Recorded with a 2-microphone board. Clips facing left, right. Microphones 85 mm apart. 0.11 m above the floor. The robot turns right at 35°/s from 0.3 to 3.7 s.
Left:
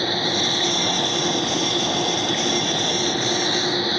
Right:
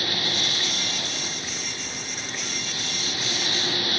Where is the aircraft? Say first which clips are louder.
Left 7 dB; 35° left; by 4.0 s 150° left.